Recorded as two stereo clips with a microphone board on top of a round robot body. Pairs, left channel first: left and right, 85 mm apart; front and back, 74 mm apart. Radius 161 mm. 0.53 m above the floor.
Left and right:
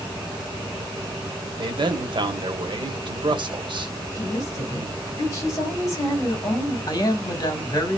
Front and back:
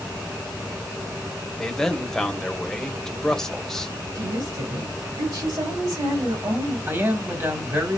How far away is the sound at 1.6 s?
About 1.7 m.